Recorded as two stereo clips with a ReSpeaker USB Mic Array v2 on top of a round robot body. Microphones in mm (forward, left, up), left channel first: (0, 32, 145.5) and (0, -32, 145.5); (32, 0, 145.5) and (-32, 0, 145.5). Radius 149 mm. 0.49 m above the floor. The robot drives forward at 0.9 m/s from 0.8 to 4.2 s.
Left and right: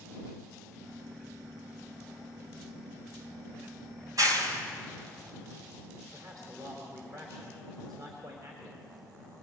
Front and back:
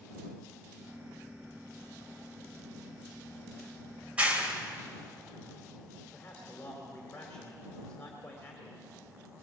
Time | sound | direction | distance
4.0 | a clap | 110° right | 3 m
6.1 | a man speaking | 75° right | 3 m